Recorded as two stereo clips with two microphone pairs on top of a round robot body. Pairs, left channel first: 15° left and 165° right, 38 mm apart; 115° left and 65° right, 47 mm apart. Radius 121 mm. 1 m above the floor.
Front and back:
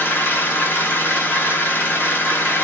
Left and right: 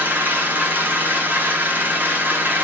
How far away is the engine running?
About 1.0 m.